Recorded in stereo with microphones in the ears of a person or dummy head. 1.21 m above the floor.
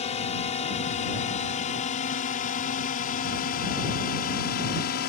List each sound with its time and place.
0.0 s a drone: 35° left (ahead or behind); by 5.1 s 55° left (ahead or behind)